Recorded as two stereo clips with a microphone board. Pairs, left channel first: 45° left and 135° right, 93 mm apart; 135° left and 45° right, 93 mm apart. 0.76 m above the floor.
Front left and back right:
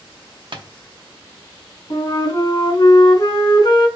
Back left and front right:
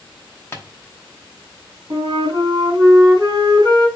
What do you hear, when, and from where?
0.5 s tapping: 165° right, 0.7 m
1.9 s a flute: straight ahead, 2.5 m